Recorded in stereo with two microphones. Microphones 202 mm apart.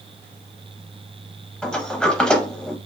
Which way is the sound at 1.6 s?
5° left (ahead or behind).